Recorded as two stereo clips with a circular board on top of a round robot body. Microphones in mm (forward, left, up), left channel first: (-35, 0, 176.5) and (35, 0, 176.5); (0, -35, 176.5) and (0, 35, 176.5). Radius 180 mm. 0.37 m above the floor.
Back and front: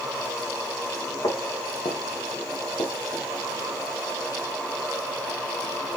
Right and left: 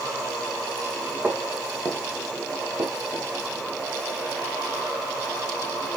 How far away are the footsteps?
About 3.5 m.